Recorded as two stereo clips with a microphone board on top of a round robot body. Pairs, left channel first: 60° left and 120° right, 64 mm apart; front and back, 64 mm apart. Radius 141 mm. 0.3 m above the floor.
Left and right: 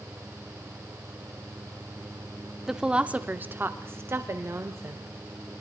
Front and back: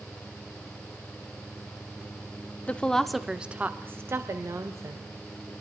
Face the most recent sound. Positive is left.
turn(degrees=-165)